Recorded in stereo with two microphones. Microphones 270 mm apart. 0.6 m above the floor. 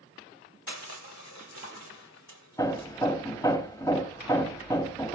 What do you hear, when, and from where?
0.7 s crushing: 80° left, 1.5 m
2.6 s hammering: 10° left (ahead or behind), 1.1 m